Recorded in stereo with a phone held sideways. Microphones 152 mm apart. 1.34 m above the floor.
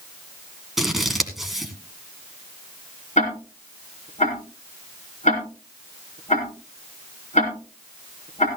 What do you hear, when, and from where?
0.8 s scissors: centre (ahead or behind), 2 m
3.2 s ticking: 50° left (ahead or behind), 4.5 m